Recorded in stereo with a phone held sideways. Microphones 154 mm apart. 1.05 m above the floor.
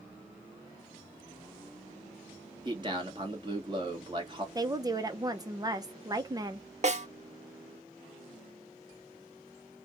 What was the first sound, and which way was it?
A man speaking, 30° right (ahead or behind).